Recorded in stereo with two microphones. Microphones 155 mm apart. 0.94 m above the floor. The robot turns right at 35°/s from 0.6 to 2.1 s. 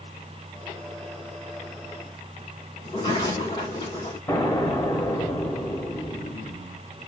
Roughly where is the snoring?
I don't hear snoring.